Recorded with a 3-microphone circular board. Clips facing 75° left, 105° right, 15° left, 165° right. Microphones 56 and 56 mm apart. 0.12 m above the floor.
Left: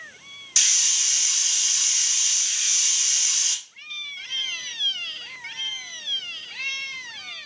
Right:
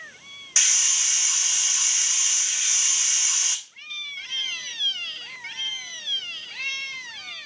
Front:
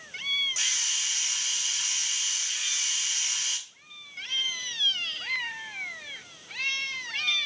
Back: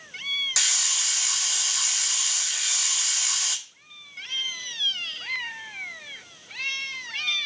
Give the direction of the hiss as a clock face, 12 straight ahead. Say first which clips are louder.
Right 1 dB, back 2 dB; 6 o'clock.